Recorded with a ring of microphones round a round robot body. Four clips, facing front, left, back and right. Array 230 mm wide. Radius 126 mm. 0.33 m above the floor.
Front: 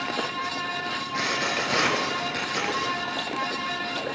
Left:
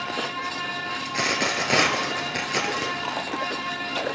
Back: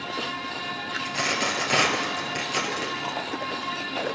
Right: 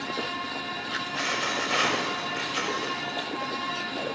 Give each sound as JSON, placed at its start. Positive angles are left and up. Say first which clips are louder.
{"t": 1.1, "sound": "a dropped coin", "louder": "left 5 dB, back 2 dB", "azimuth_deg": 95, "distance_m": 1.5}